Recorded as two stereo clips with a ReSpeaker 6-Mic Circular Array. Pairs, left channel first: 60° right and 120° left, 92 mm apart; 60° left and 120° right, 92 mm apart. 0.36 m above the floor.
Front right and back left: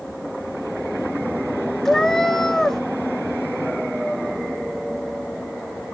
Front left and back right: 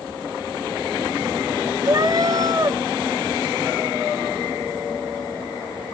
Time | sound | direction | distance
1.9 | a cat meowing | 145° right | 0.8 m